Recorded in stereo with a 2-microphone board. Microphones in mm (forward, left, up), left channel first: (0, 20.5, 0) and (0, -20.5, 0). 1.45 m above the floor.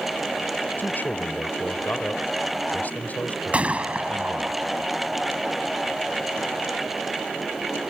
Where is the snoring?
No snoring in this recording.